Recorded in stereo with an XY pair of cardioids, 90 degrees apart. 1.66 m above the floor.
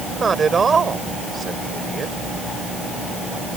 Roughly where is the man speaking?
Ahead right.